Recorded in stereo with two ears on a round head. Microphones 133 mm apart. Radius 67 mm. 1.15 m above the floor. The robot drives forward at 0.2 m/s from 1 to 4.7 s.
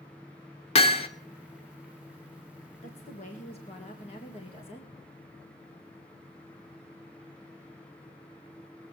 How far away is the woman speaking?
About 1.6 m.